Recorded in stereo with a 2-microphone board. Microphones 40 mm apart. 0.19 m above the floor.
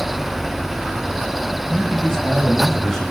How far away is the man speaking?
About 8.5 m.